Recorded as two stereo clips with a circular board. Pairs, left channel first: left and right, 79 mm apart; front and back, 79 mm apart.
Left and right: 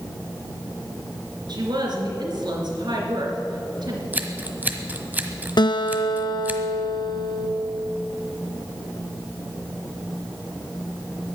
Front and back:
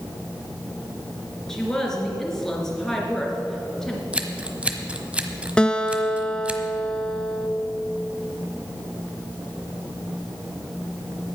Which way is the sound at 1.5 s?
80° right.